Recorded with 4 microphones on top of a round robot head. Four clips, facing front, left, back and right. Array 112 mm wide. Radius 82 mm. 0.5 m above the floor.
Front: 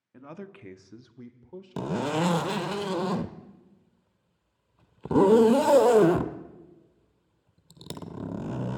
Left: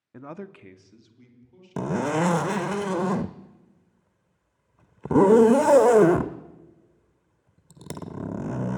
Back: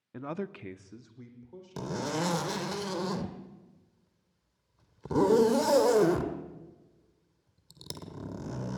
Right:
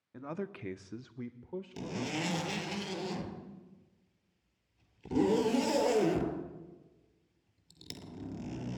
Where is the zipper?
65° left, 0.8 m.